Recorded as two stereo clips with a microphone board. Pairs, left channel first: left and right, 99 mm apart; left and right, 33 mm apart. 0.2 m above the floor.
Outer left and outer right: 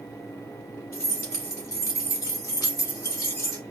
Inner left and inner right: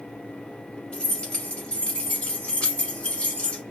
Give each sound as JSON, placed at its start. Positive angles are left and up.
{"t": 0.9, "sound": "keys jangling", "side_deg": 30, "distance_m": 1.4}